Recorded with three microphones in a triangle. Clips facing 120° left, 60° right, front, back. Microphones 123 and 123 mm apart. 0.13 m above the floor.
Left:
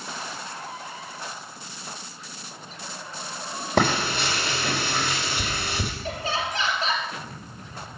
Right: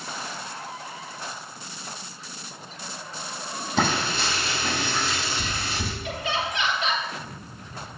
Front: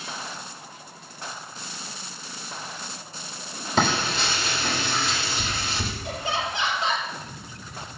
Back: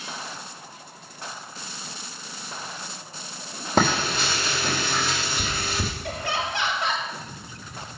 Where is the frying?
145° left, 4.5 m.